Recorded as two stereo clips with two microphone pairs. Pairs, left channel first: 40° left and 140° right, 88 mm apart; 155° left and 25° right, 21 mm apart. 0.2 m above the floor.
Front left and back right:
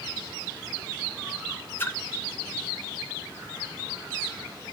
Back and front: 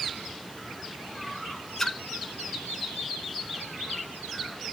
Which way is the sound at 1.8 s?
100° left.